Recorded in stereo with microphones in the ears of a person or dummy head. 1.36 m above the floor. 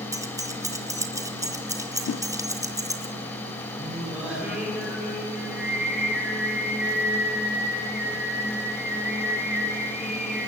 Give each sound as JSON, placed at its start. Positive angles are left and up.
{"t": 0.1, "sound": "keys jangling", "side_deg": -15, "distance_m": 0.5}
{"t": 2.1, "sound": "a whoosh", "side_deg": 85, "distance_m": 0.5}
{"t": 3.8, "sound": "singing", "side_deg": -10, "distance_m": 6.0}